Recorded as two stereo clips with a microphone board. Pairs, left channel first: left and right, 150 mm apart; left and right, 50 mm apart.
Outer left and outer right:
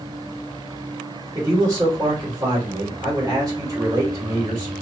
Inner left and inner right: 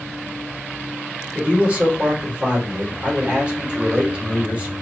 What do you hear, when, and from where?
1.4 s a man speaking: 25° right (ahead or behind), 2.5 m